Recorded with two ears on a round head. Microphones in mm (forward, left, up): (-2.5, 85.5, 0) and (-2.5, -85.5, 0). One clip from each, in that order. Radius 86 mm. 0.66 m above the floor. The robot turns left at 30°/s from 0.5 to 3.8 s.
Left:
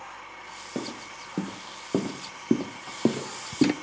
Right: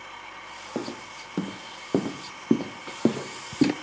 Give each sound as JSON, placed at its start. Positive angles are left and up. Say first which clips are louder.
{"t": 0.8, "sound": "footsteps", "louder": "right 1 dB", "side_deg": -65, "distance_m": 1.9}